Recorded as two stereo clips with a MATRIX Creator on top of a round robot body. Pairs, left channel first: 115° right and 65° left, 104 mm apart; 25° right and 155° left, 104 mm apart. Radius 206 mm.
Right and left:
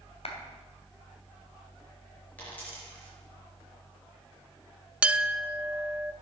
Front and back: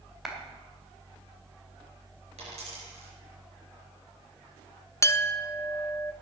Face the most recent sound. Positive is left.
turn(degrees=0)